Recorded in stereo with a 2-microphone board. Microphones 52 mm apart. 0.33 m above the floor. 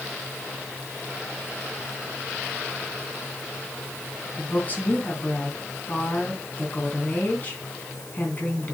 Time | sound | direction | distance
4.4 | a woman speaking | 30° left (ahead or behind) | 2.5 m